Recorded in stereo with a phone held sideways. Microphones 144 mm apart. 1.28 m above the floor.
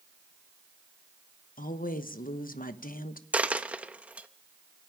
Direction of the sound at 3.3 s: 10° right (ahead or behind).